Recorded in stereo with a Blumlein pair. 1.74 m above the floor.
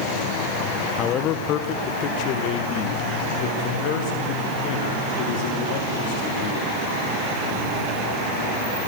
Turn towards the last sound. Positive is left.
turn(degrees=50)